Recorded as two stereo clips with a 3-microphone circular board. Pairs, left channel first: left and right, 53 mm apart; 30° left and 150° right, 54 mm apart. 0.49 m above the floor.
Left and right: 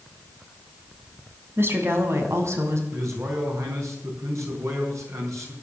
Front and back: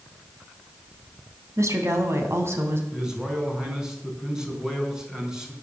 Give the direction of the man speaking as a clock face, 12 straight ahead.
2 o'clock.